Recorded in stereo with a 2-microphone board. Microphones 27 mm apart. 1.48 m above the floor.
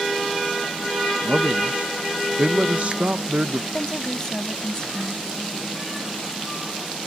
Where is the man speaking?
65° right (ahead or behind).